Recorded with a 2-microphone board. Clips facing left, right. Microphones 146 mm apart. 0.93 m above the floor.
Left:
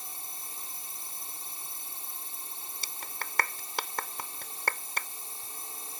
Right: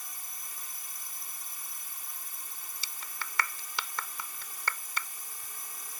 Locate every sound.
0.0 s a drone: 30° left (ahead or behind)
2.8 s a clap: 50° left (ahead or behind)